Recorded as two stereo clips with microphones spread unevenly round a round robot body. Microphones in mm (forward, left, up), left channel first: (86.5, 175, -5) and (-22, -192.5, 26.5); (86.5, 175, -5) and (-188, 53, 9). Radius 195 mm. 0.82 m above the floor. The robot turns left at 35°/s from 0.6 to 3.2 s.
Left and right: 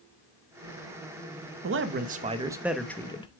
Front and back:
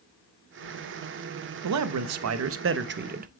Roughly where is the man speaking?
Behind.